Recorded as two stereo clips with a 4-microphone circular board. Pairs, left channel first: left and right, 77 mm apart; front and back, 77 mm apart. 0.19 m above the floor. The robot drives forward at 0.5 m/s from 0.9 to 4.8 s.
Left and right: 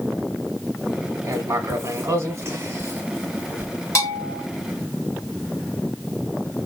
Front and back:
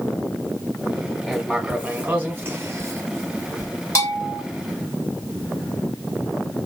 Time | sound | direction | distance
1.2 | writing | 90° right | 1.4 m
4.0 | a bell | 45° left | 3 m